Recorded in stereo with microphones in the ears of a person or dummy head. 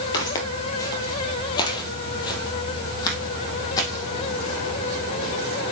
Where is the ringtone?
No ringtone in this recording.